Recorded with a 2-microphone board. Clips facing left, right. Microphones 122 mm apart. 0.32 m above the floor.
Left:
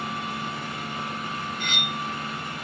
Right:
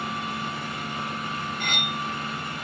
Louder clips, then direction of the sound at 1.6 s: Right 1 dB; 50° right (ahead or behind).